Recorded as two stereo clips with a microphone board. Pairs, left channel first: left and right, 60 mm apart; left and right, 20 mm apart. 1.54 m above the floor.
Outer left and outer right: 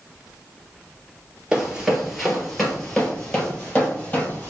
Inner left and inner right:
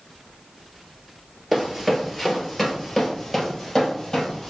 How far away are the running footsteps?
About 1.6 m.